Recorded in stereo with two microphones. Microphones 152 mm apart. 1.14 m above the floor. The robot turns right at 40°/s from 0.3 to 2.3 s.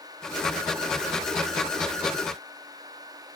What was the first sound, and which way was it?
Only background noise.